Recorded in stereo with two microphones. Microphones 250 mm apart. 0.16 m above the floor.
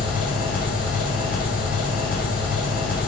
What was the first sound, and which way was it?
An engine running, 40° left (ahead or behind).